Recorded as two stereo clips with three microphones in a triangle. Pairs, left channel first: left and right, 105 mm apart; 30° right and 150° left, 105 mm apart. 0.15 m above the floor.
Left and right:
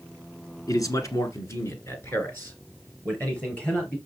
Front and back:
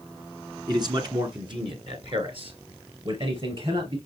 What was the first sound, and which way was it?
A man speaking, 125° left.